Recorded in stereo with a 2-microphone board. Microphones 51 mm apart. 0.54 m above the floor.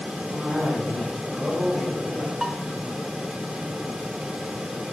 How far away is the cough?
About 4 m.